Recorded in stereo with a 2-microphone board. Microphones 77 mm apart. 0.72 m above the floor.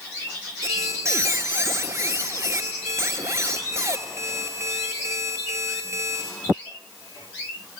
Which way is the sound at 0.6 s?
35° right (ahead or behind).